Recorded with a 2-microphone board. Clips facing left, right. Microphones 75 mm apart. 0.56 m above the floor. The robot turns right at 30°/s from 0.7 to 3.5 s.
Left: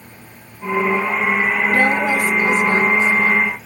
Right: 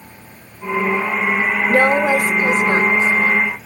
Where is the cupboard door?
I don't hear a cupboard door.